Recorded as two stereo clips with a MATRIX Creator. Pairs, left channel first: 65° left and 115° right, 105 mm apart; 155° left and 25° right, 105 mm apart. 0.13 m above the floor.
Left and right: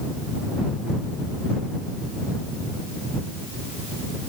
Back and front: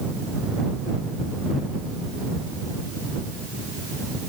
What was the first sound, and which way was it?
Only background noise.